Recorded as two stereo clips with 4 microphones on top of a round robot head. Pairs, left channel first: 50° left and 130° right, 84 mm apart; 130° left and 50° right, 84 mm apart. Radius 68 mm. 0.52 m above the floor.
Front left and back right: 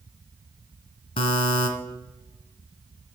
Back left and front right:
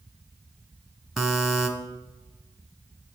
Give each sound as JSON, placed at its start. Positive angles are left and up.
{"t": 1.2, "sound": "a buzzer", "azimuth_deg": 35, "distance_m": 1.6}